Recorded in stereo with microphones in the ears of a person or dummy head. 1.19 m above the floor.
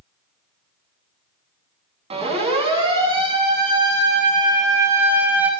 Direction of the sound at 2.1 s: 30° right (ahead or behind).